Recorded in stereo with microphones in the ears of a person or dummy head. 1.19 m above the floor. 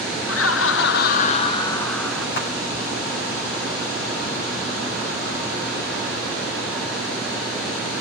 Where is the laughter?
70° left (ahead or behind), 0.9 m; by 2.3 s 5° right (ahead or behind), 0.9 m.